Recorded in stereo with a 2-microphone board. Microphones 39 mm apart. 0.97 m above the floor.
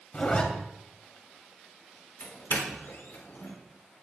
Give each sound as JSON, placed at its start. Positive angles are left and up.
{"t": 0.1, "sound": "a zipper", "side_deg": 35, "distance_m": 2.5}
{"t": 2.2, "sound": "a doorbell", "side_deg": 75, "distance_m": 3.5}